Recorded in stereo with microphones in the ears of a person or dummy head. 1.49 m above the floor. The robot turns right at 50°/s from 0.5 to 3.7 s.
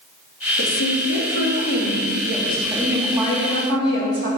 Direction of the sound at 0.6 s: 75° left.